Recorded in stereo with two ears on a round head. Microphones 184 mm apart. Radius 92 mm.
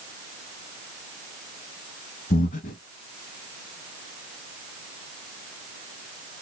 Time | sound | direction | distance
2.3 | breathing | 40° left (ahead or behind) | 0.8 m